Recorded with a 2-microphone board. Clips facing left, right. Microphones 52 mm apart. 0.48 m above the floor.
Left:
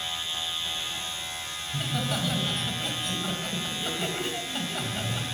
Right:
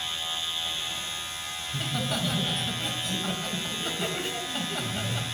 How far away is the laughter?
About 2.5 m.